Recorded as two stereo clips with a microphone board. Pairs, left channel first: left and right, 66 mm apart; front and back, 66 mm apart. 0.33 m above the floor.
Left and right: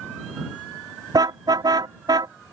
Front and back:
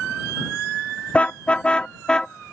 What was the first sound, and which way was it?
A car horn, 75° right.